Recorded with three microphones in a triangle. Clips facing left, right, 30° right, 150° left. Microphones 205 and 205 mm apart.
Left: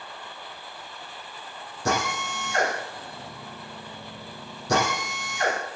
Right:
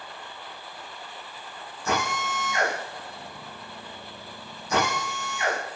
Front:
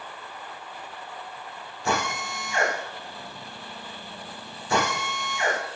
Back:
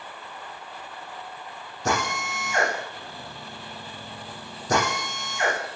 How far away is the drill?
About 9 m.